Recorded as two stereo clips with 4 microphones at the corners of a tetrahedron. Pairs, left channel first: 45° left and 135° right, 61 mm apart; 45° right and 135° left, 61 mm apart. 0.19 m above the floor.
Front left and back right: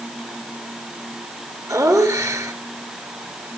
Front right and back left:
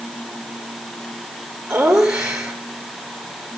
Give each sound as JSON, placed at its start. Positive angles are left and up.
{"t": 1.7, "sound": "laughter", "azimuth_deg": -150, "distance_m": 4.0}